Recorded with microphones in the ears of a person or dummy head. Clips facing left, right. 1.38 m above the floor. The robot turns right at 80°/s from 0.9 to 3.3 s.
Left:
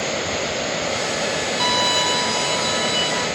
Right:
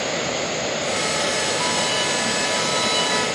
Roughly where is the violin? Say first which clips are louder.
Left 2 dB; ahead left.